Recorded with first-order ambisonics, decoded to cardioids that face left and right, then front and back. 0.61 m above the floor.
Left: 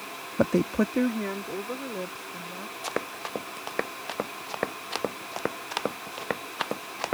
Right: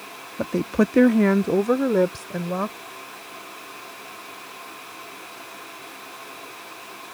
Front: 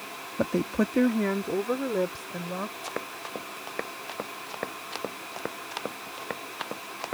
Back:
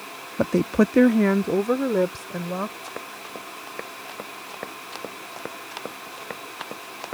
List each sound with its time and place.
0.4 s a woman speaking: 125° left; by 2.7 s 110° right
2.8 s running footsteps: 80° left; by 7.2 s 90° left